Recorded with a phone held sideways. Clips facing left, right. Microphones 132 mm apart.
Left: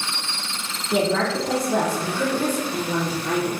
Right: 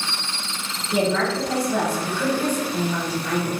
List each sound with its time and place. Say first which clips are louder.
0.9 s a woman speaking: even; 40° left (ahead or behind), 0.7 m